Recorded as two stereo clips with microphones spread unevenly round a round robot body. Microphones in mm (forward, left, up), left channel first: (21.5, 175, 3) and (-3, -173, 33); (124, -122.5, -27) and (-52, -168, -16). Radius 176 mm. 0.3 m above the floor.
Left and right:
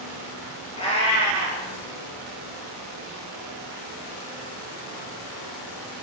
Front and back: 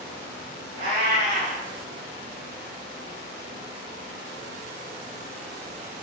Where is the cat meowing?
160° left, 2.5 m.